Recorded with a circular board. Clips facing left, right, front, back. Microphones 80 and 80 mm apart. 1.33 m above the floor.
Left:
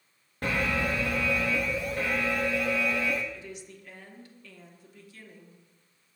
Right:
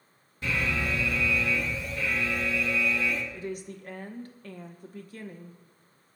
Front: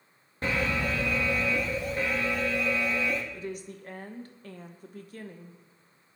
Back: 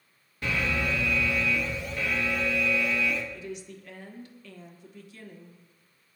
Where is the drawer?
No drawer in this recording.